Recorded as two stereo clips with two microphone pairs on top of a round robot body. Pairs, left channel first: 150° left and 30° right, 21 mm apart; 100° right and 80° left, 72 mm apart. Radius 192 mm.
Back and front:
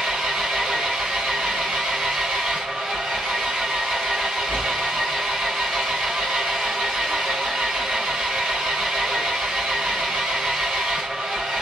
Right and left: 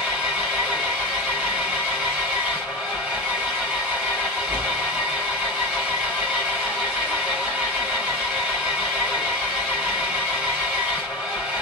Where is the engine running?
5° left, 1.5 m.